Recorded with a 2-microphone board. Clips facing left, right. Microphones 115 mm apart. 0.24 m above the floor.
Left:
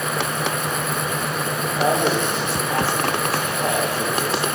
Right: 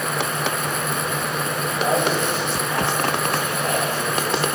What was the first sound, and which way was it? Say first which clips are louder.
A man speaking: left 1 dB; 75° left (ahead or behind).